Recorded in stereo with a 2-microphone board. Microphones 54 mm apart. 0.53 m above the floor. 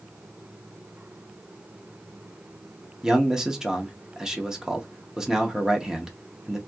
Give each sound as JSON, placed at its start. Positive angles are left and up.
{"t": 3.0, "sound": "a man speaking", "side_deg": -10, "distance_m": 0.6}